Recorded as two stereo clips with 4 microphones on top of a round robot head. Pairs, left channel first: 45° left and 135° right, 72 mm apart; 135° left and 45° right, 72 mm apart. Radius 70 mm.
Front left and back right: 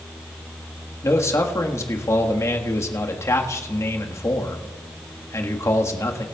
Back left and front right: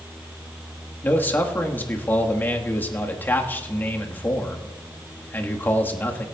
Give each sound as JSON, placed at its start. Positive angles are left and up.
{"t": 1.0, "sound": "a man speaking", "azimuth_deg": 80, "distance_m": 1.5}